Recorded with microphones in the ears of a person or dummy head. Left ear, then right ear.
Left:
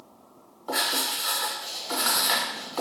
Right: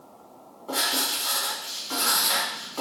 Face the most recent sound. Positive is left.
turn(degrees=45)  # may be behind; listen again after turning